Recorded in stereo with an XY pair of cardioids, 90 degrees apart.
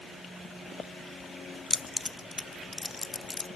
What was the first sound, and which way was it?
Keys jangling, 30° left.